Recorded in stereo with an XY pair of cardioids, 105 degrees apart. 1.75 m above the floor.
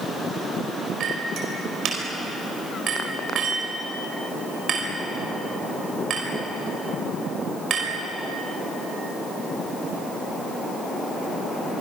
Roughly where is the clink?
Ahead right.